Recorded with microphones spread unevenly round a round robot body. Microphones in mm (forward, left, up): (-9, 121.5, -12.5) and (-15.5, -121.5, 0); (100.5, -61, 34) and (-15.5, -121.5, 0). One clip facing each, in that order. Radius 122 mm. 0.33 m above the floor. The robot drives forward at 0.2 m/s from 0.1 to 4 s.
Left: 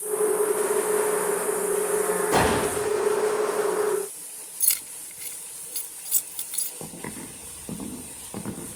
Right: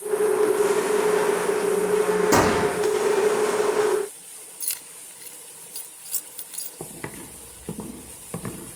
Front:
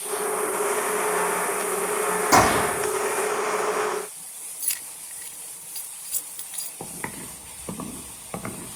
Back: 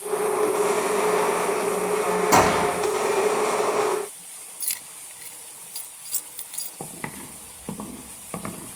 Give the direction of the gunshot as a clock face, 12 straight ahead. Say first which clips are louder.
Right 3 dB, front 1 dB; 3 o'clock.